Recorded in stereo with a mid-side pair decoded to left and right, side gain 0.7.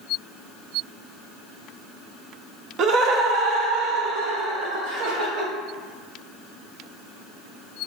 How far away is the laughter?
About 0.5 m.